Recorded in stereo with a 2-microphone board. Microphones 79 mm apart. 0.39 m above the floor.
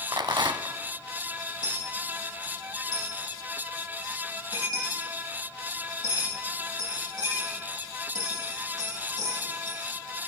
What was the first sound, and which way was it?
A rattle, 85° right.